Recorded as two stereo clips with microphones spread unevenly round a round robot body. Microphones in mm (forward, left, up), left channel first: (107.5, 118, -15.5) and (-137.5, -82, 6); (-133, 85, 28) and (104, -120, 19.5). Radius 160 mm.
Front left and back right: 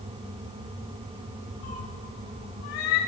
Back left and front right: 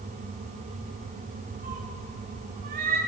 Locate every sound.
1.6 s a cat meowing: 20° left, 1.2 m